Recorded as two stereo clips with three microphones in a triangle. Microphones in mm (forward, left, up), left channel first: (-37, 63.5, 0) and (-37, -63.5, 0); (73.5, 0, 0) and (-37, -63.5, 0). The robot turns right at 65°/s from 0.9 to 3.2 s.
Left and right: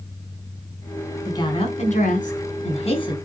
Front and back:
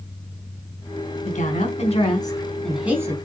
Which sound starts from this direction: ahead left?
A woman speaking, at 1.2 s.